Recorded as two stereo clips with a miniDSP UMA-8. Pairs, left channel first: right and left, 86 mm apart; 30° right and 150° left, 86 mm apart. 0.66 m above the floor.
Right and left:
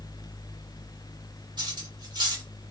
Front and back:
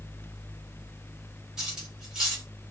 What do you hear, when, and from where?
1.6 s cutlery clinking: 65° left, 1.9 m